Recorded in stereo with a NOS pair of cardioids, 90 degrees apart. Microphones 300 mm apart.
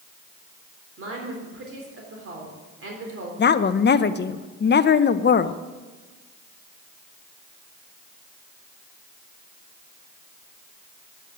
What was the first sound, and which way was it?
A woman speaking, 45° right.